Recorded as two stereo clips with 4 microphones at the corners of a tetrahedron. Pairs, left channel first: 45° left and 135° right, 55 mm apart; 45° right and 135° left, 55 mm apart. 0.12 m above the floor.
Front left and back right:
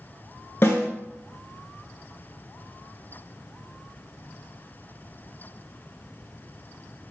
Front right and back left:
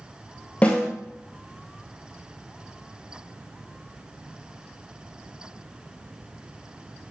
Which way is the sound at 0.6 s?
10° left.